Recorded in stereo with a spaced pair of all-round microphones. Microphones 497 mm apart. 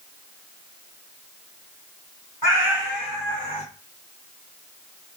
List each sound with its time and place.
2.4 s a cat meowing: 45° left (ahead or behind), 1.8 m; by 3.6 s 10° left (ahead or behind), 1.1 m